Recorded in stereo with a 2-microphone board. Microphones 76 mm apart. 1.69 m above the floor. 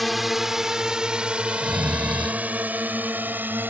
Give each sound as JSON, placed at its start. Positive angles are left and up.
{"t": 0.0, "sound": "a drone", "side_deg": 0}
{"t": 1.5, "sound": "snoring", "side_deg": -80}